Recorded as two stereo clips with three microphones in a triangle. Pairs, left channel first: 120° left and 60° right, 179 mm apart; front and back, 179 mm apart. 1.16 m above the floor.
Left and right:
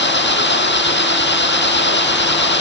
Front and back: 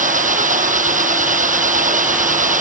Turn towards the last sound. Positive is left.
turn(degrees=135)